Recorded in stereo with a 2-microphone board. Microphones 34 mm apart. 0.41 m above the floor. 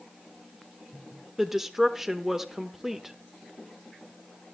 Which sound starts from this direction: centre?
A woman speaking, at 1.4 s.